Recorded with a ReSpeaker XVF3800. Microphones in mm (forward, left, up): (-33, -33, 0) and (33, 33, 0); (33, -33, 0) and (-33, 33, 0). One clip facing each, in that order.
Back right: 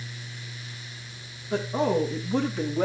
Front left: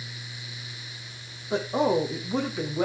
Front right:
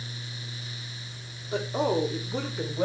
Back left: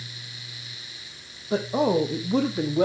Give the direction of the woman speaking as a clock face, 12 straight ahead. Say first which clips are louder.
Front left 1 dB, back left 4 dB; 8 o'clock.